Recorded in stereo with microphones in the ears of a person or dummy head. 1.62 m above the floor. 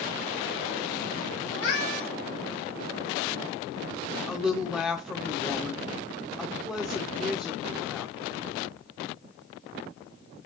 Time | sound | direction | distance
1.5 | a cat meowing | 65° left (ahead or behind) | 3.5 m
4.3 | a woman speaking | centre (ahead or behind) | 0.6 m